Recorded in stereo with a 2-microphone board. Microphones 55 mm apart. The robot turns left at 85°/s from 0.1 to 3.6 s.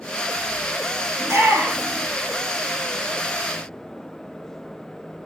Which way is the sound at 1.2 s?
70° right (ahead or behind).